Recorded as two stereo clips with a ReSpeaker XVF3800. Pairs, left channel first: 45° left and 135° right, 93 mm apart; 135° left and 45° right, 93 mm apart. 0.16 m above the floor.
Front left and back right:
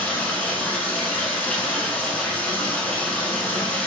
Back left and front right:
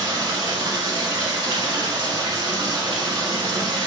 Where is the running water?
25° right, 0.8 m.